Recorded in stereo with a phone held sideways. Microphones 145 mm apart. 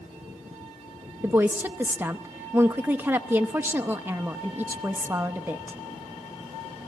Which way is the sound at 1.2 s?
15° right (ahead or behind).